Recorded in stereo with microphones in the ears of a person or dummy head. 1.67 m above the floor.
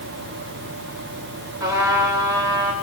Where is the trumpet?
20° right (ahead or behind), 7 m.